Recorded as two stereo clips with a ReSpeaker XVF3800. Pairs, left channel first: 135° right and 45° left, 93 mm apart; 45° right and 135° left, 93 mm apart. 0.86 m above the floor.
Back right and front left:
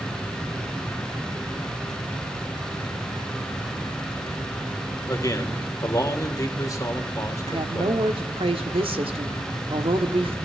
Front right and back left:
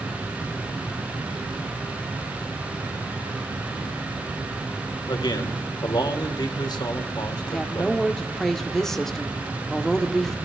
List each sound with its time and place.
5.1 s a man speaking: 80° right, 2.5 m
7.5 s a woman speaking: 40° left, 1.9 m